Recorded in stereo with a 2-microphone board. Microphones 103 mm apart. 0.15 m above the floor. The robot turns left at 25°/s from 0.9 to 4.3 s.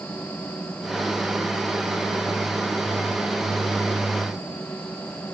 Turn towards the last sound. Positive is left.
No sound to turn to.